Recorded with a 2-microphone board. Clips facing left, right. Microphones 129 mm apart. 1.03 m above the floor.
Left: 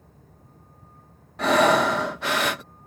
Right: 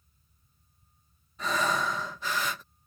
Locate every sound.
0.0 s a vehicle: 85° left
1.4 s breathing: 70° left (ahead or behind)